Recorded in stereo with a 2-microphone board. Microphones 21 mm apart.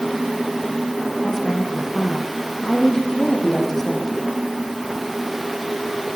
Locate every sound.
1.2 s a woman speaking: 15° left (ahead or behind), 6.5 m